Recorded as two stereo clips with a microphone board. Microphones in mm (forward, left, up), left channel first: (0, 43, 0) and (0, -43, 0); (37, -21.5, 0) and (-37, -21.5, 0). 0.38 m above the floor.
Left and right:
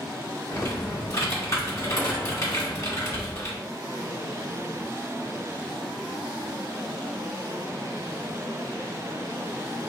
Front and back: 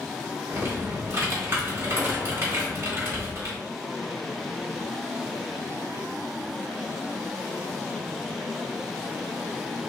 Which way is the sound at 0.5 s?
135° left.